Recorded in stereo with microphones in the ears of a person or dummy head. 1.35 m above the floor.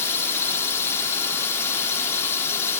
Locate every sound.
0.0 s a drone: 15° left (ahead or behind)